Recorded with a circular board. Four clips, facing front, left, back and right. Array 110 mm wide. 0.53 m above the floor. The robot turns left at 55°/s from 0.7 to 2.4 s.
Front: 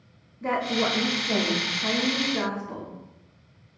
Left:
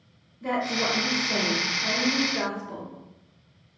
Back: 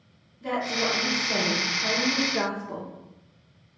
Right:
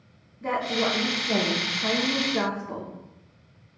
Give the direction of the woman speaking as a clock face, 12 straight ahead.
1 o'clock.